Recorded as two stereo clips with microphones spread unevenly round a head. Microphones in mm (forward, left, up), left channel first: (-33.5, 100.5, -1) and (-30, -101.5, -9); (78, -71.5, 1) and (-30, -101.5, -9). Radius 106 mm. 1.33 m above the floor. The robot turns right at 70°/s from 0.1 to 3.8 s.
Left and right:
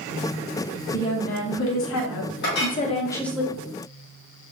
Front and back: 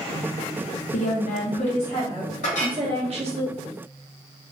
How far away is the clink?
About 0.8 m.